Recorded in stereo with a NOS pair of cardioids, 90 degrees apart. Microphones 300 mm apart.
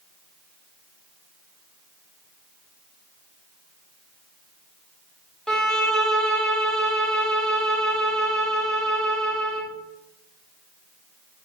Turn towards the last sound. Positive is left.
turn(degrees=0)